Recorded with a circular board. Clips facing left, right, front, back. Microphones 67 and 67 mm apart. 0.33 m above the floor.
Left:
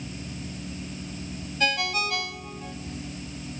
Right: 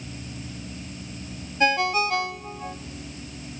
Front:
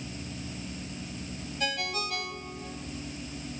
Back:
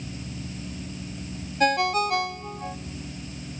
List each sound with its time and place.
1.6 s a ringtone: 150° right, 0.9 m